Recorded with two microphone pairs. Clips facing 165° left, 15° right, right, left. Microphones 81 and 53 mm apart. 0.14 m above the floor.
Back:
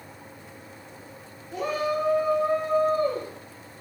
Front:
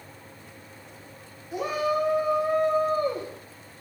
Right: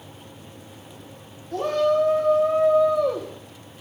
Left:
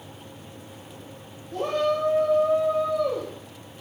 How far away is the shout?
About 7 m.